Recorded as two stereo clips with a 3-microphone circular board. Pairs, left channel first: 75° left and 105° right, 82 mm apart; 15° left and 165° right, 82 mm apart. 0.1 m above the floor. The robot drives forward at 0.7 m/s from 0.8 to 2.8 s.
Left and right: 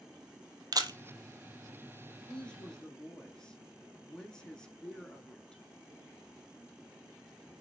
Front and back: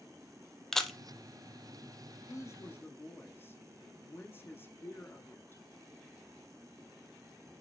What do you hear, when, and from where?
0.7 s a camera shutter: 70° right, 0.7 m; by 1.0 s 80° right, 0.7 m
2.3 s a woman speaking: straight ahead, 1.4 m; by 5.6 s 5° left, 1.1 m